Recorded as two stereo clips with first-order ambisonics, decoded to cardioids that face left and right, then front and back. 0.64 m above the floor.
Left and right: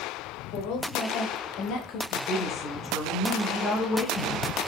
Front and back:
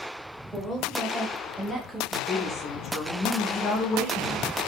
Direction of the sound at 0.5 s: 70° left.